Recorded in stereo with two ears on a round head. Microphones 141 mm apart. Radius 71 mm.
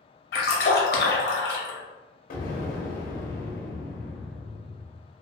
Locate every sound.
0.3 s a splash: 65° left (ahead or behind), 0.7 m
2.3 s an explosion: 55° left (ahead or behind), 0.6 m